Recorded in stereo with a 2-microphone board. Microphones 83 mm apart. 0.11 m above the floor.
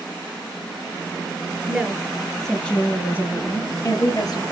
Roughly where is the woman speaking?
Centre.